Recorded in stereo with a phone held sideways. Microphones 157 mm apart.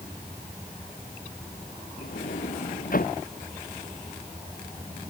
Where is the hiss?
No hiss in this recording.